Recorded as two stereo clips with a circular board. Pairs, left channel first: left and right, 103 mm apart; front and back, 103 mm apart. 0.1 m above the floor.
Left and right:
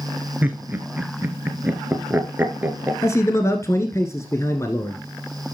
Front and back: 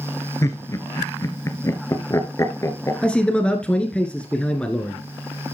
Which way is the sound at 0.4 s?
30° right.